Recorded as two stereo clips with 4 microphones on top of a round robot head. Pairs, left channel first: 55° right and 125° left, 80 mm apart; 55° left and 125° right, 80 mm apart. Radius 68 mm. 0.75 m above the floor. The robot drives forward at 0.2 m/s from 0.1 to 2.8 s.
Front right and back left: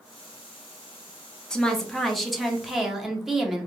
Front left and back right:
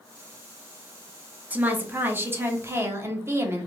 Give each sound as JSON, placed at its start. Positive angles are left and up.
{"t": 1.5, "sound": "a woman speaking", "azimuth_deg": -120, "distance_m": 0.7}